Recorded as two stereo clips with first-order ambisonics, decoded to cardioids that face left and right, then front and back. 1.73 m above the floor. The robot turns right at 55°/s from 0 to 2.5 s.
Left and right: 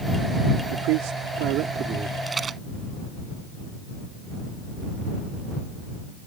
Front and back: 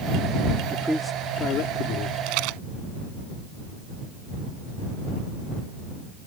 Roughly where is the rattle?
Behind.